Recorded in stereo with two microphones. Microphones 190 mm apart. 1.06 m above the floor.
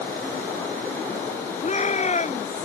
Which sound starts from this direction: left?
A shout, at 1.6 s.